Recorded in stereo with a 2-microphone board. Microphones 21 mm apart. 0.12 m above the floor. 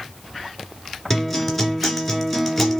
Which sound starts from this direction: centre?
A guitar, at 1.1 s.